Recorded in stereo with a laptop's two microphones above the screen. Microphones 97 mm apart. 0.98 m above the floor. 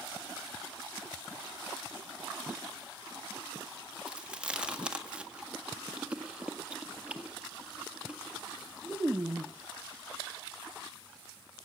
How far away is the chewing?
About 1.5 m.